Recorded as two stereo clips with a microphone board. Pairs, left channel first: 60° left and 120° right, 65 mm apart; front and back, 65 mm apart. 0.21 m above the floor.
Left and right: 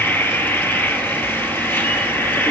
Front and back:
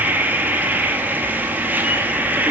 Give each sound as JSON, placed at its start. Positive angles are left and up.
{"t": 0.0, "sound": "an insect", "azimuth_deg": 115, "distance_m": 1.6}